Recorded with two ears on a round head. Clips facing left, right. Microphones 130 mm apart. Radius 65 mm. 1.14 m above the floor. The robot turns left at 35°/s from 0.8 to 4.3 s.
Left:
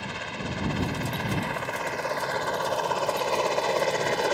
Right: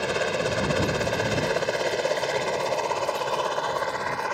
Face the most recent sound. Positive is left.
turn(degrees=40)  # may be behind; listen again after turning